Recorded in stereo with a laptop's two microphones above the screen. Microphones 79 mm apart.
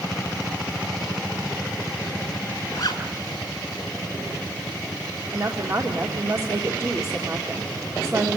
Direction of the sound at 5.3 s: 45° right (ahead or behind).